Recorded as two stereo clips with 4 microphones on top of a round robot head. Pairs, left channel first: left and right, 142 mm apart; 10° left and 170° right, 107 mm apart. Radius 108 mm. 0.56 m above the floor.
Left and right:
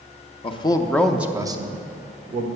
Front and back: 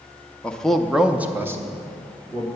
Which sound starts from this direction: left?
A man speaking, at 0.4 s.